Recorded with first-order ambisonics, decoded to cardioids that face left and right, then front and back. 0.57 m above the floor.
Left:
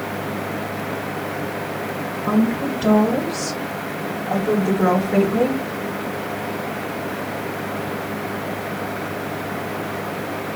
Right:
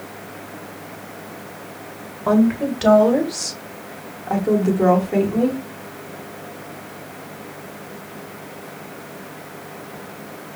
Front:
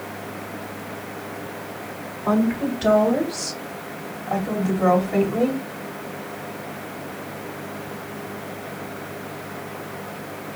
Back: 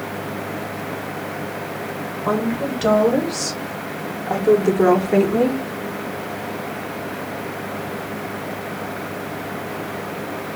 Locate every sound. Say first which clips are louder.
2.3 s a woman speaking: right 4 dB, even; 115° right, 1.9 m; by 5.6 s 155° left, 1.2 m